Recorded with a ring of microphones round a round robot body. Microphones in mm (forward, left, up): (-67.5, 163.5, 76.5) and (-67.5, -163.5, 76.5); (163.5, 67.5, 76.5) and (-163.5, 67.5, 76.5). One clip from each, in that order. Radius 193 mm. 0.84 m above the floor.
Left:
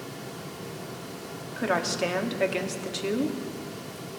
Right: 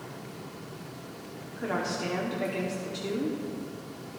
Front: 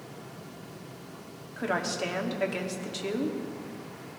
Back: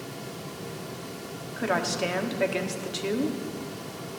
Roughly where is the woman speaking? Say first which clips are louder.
Left 5 dB, back 3 dB; left.